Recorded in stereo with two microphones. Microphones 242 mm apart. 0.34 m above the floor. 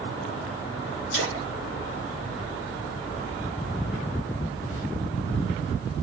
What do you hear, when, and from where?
1.1 s a splash: 55° left (ahead or behind), 4.5 m